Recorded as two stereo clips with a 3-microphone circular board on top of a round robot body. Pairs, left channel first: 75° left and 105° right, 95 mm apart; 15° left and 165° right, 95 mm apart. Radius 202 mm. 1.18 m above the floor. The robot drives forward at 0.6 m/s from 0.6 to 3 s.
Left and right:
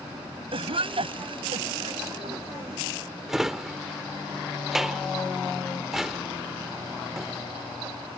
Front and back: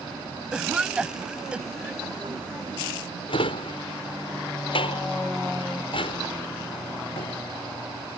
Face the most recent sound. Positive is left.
turn(degrees=-20)